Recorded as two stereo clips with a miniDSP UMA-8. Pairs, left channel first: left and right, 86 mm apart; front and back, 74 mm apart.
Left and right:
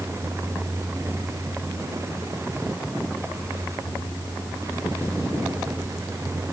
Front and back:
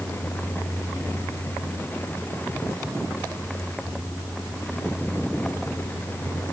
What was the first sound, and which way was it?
Only background noise.